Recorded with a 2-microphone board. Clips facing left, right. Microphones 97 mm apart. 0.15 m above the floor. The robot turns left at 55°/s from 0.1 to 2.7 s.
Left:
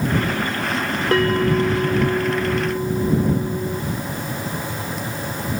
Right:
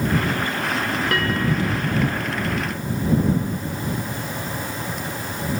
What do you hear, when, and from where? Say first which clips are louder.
1.1 s a bell: left 8 dB; 155° left; by 3.8 s 65° left